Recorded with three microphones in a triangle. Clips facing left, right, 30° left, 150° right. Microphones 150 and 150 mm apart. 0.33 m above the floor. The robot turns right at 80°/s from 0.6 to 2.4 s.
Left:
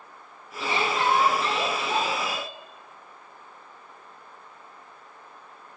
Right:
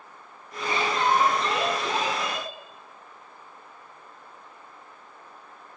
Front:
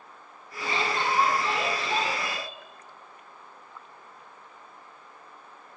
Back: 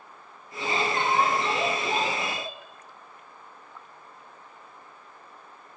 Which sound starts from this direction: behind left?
A shout, at 0.6 s.